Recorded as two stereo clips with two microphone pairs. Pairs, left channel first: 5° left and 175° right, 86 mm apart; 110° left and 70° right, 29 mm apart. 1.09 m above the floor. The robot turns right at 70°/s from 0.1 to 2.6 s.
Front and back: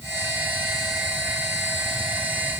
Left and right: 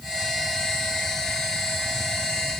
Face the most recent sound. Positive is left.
No sound to turn to.